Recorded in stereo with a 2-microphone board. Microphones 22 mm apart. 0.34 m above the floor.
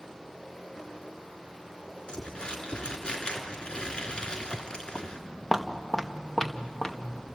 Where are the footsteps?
15° right (ahead or behind), 1.9 m; by 7.3 s 30° left (ahead or behind), 2.5 m.